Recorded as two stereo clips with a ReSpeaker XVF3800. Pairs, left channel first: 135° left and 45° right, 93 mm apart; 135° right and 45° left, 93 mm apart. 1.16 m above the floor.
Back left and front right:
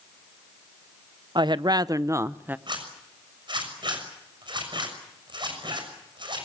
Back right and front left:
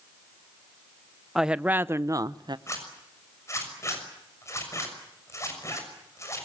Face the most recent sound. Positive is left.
turn(degrees=-75)